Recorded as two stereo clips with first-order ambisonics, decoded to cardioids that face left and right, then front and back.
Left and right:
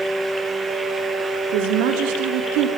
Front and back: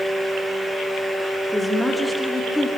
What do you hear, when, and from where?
1.5 s a woman speaking: 90° right, 1.9 m